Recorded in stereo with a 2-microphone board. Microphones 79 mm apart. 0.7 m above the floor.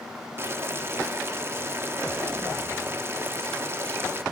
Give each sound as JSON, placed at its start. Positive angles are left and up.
{"t": 0.4, "sound": "boiling", "side_deg": -30, "distance_m": 0.9}